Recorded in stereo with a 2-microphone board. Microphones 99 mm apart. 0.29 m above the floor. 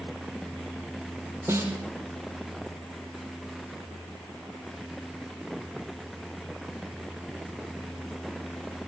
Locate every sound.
1.5 s a snare drum: 25° right (ahead or behind), 4 m